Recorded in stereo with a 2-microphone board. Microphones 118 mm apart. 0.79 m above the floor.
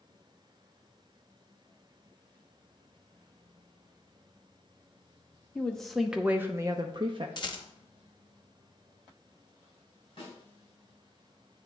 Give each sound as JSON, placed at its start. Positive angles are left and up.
{"t": 5.5, "sound": "a woman speaking", "side_deg": 10, "distance_m": 0.8}
{"t": 7.4, "sound": "a rattle", "side_deg": 35, "distance_m": 0.8}
{"t": 10.2, "sound": "a snare drum", "side_deg": 40, "distance_m": 3.0}